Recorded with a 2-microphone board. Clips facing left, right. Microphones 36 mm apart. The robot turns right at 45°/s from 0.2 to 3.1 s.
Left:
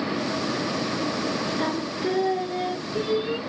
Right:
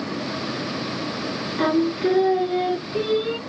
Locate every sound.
1.6 s singing: 105° right, 1.6 m; by 3.4 s 35° right, 1.6 m